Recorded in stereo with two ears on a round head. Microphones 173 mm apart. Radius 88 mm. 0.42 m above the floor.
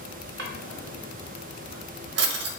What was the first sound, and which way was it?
A drawer, 60° right (ahead or behind).